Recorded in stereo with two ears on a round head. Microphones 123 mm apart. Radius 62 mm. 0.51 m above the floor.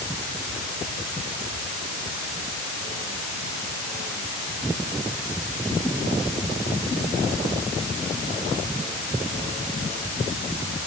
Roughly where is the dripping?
I don't hear dripping.